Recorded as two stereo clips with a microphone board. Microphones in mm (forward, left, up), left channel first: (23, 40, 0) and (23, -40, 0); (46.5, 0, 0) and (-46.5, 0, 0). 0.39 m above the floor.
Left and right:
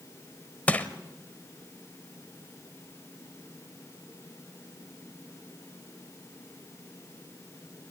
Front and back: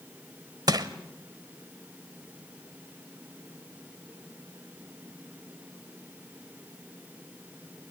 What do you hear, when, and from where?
0.7 s crushing: 155° left, 1.1 m